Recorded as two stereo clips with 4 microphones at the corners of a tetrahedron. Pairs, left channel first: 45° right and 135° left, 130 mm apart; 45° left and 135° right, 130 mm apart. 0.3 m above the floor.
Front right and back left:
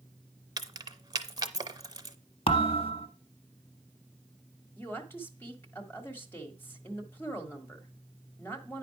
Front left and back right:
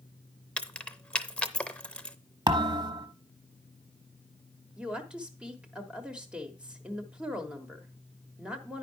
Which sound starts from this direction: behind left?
Keys jangling, at 0.6 s.